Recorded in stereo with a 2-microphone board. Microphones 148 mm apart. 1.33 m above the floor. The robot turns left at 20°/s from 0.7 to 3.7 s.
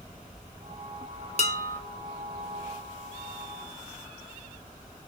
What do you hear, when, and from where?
1.4 s dishes clattering: 50° left (ahead or behind), 0.8 m; by 1.8 s 55° left (ahead or behind), 0.8 m